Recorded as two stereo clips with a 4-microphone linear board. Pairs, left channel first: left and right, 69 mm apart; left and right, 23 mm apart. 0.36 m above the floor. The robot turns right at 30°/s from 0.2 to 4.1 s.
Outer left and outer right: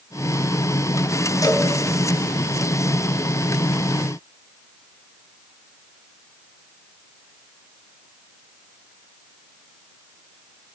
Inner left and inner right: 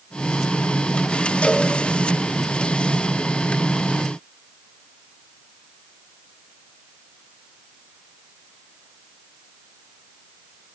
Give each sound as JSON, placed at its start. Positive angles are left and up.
{"t": 1.4, "sound": "a cowbell", "side_deg": 65, "distance_m": 3.0}